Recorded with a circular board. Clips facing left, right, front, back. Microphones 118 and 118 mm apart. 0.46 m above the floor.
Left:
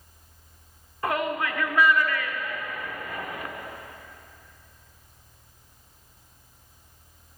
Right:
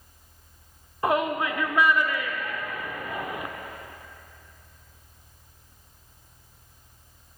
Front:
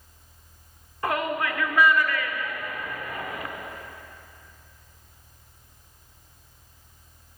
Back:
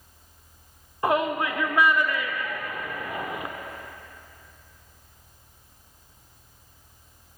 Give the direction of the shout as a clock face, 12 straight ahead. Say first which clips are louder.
Right 3 dB, back 3 dB; 5 o'clock.